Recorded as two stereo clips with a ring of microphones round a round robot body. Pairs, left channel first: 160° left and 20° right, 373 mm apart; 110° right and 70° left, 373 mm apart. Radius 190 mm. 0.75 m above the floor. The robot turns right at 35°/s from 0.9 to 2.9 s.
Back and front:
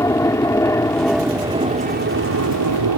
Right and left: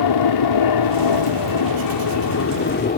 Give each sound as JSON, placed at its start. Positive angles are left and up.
{"t": 0.0, "sound": "an aircraft", "azimuth_deg": -120}